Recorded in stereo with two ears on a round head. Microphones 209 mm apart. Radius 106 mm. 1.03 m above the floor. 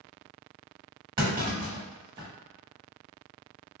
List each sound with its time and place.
1.2 s a clunk: 20° right (ahead or behind), 1.1 m